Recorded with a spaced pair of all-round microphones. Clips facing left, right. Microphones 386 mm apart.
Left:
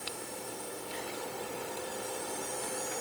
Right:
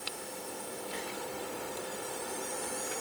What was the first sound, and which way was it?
Only background noise.